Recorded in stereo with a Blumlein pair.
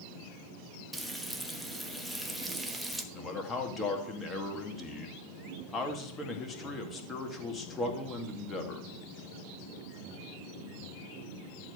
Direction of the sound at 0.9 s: Straight ahead.